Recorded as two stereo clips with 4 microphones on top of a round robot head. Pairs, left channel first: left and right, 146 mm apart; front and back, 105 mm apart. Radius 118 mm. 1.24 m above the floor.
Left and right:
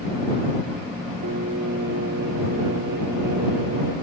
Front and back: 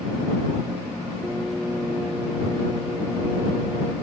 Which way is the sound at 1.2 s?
90° right.